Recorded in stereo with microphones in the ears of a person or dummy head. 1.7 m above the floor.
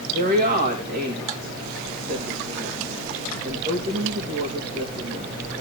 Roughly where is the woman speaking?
Right.